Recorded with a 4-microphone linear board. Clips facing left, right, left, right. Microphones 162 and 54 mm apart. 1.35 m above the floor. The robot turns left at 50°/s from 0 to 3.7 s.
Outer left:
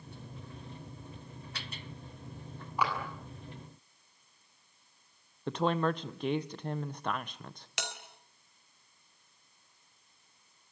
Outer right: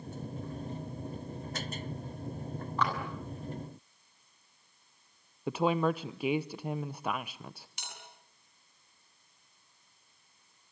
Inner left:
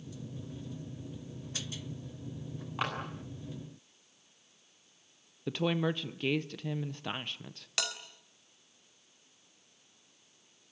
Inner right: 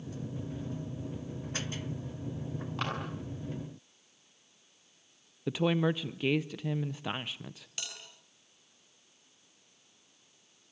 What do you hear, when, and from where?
2.8 s a clap: 10° left (ahead or behind), 9.5 m; by 2.9 s 5° left (ahead or behind), 9.5 m
5.5 s a woman speaking: 5° right (ahead or behind), 0.6 m
7.8 s a bell: 80° left, 3.5 m